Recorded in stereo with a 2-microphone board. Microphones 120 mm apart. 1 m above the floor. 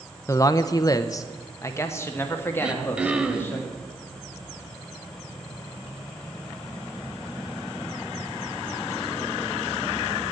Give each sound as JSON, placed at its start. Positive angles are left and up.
{"t": 0.3, "sound": "a man speaking", "side_deg": 25, "distance_m": 0.6}
{"t": 2.6, "sound": "throat clearing", "side_deg": -10, "distance_m": 0.8}